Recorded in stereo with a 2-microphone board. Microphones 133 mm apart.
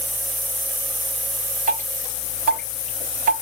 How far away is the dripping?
About 3.5 m.